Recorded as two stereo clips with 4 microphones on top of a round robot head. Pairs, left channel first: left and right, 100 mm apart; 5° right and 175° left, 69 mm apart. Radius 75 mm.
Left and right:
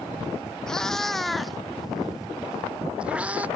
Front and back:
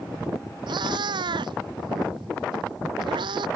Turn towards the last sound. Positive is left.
turn(degrees=-165)